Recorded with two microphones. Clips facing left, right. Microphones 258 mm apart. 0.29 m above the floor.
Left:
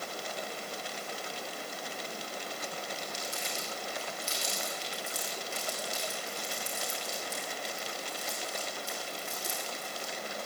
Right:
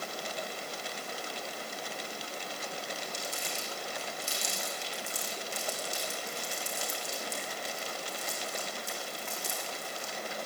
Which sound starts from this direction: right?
Crumpling, at 3.0 s.